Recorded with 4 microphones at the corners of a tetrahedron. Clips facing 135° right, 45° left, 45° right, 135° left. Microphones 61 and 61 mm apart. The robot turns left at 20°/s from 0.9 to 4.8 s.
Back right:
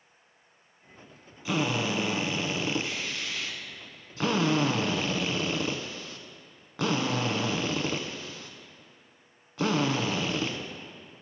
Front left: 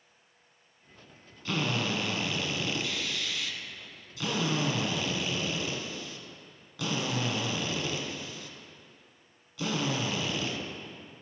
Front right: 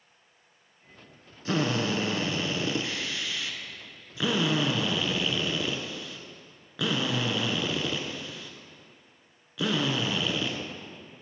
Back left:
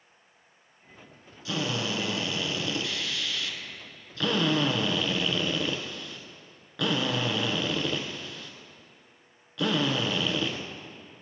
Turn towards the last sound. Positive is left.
turn(degrees=-130)